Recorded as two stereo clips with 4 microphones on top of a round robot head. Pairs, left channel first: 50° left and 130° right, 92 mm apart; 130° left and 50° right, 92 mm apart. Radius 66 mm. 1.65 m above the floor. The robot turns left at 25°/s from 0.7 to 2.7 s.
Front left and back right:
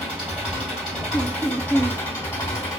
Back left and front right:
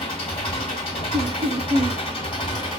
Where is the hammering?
I don't hear hammering.